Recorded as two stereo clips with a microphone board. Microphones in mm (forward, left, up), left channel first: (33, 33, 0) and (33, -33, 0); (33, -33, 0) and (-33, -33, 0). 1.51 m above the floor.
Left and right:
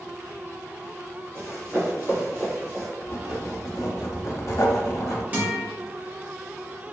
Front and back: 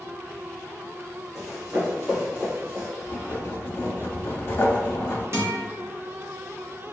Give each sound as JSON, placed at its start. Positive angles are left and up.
{"t": 1.4, "sound": "running footsteps", "azimuth_deg": -95, "distance_m": 2.0}
{"t": 3.0, "sound": "writing", "azimuth_deg": 50, "distance_m": 0.5}
{"t": 5.3, "sound": "a guitar", "azimuth_deg": -145, "distance_m": 0.9}